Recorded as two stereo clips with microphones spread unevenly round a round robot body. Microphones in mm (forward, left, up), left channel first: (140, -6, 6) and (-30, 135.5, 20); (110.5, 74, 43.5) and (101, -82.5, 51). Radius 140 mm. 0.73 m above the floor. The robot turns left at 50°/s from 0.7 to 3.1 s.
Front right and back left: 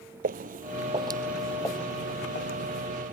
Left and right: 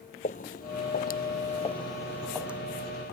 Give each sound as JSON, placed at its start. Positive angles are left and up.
{"t": 0.2, "sound": "footsteps", "azimuth_deg": 125}